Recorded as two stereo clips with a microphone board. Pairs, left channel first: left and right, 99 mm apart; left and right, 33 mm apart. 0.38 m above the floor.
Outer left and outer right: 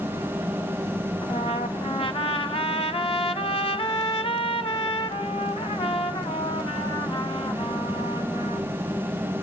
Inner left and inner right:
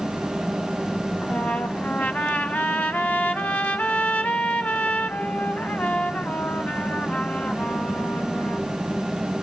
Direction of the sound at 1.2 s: 70° left (ahead or behind).